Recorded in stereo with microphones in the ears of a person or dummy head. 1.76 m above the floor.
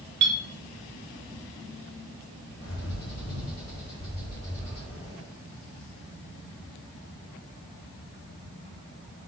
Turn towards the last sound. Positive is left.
turn(degrees=55)  # may be behind; listen again after turning